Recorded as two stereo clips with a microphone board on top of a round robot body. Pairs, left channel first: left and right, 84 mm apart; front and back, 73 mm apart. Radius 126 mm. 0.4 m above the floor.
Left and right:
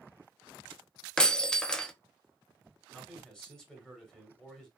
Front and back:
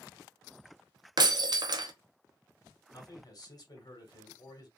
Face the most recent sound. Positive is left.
turn(degrees=10)